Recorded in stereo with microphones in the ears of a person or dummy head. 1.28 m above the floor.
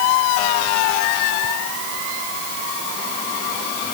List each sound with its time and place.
Only background noise.